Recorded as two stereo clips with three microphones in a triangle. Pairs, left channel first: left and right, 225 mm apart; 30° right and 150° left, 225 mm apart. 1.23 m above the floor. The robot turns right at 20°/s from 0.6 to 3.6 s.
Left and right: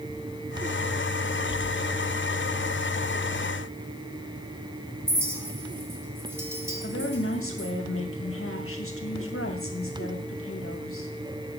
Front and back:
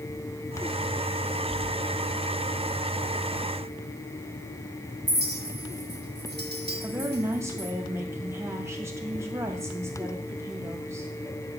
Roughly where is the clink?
Behind.